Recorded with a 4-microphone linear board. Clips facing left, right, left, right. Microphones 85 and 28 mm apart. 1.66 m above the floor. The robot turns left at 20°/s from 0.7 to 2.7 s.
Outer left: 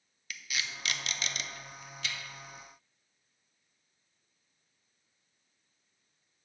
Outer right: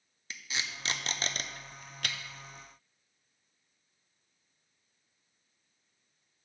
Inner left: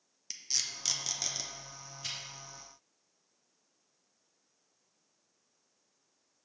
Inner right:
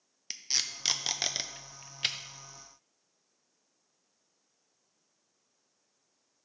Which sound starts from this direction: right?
Tape being pulled, at 0.3 s.